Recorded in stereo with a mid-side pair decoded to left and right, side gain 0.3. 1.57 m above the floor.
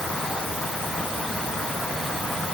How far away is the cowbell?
I don't hear a cowbell.